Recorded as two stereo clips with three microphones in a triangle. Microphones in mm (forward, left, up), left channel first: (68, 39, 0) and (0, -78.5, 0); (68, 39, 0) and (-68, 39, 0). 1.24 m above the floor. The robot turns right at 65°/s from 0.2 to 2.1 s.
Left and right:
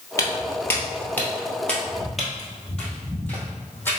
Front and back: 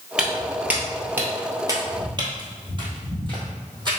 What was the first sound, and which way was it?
Footsteps, 100° left.